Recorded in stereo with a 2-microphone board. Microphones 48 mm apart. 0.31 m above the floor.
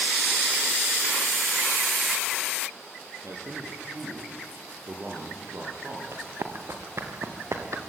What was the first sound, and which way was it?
A man speaking, 80° right.